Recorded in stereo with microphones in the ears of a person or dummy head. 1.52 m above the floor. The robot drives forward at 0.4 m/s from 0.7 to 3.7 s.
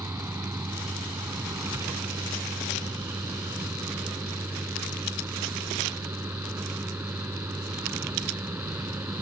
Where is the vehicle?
15° right (ahead or behind); by 9.2 s 10° right (ahead or behind).